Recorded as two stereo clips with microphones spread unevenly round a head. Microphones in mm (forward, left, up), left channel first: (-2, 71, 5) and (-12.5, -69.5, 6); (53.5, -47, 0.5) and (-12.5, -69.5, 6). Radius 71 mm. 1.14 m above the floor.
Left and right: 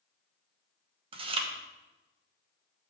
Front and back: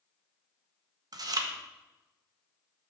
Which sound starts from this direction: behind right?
Chewing, at 1.1 s.